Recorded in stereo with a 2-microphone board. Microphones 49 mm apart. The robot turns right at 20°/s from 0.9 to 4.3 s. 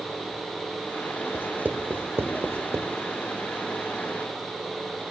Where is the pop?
No pop in this recording.